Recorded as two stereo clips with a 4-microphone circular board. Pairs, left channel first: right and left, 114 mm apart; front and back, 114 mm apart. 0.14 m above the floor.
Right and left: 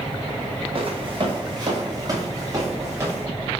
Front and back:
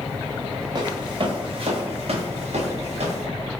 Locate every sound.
0.8 s footsteps: 130° left, 1.3 m; by 3.3 s 155° left, 2 m